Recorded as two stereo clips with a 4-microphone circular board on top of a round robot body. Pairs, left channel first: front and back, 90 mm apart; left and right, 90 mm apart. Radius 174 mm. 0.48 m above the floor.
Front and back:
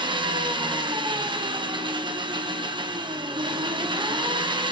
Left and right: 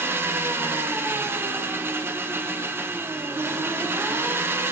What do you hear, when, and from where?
0.0 s an engine running: 155° right, 0.9 m